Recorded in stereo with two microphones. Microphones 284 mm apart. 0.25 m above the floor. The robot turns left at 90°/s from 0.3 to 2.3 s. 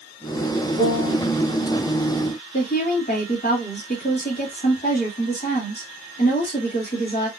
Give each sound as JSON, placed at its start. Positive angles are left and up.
{"t": 0.8, "sound": "a piano", "azimuth_deg": -125, "distance_m": 1.7}
{"t": 2.5, "sound": "a woman speaking", "side_deg": 35, "distance_m": 1.5}